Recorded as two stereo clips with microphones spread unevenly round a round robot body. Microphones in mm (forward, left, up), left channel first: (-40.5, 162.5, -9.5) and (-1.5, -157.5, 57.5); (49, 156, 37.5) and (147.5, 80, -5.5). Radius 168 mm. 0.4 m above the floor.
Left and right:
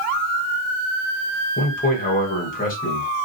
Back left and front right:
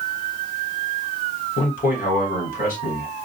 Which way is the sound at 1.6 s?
145° left.